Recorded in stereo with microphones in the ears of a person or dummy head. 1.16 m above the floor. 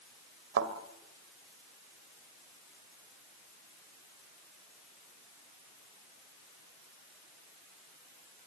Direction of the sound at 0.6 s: 70° right (ahead or behind).